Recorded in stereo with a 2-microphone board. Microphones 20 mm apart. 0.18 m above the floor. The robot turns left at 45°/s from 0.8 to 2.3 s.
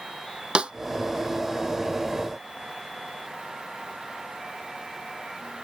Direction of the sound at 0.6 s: 50° right (ahead or behind).